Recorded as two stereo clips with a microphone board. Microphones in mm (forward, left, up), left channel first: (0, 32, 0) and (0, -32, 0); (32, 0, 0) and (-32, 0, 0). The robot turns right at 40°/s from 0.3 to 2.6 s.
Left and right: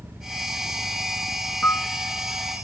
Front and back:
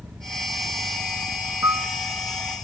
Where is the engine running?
150° right, 1.7 m; by 2.6 s 55° right, 1.7 m.